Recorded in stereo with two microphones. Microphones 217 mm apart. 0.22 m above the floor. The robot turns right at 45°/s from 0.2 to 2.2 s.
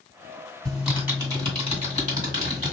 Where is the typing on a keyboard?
5° left (ahead or behind), 2.0 m; by 2.7 s 35° right (ahead or behind), 2.0 m.